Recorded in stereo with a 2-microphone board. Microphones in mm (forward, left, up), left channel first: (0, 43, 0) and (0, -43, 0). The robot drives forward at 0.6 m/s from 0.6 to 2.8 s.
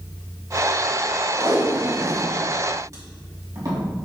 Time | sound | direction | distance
1.4 | tape being pulled | 50° right (ahead or behind) | 2.5 m